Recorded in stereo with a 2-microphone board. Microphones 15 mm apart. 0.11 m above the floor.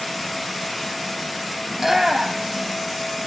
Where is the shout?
10° right (ahead or behind), 3 m; by 2.7 s 30° right (ahead or behind), 4 m.